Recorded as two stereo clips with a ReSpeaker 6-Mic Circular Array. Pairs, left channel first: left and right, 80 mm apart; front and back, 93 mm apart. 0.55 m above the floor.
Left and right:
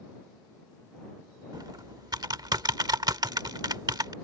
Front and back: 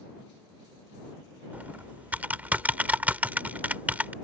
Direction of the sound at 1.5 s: 110° right.